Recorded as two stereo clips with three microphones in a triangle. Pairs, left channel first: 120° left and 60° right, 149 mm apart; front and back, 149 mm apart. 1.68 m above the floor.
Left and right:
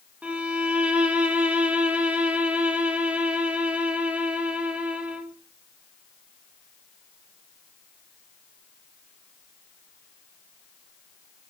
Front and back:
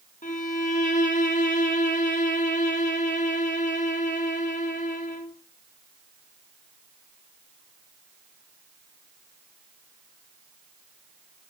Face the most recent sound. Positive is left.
turn(degrees=20)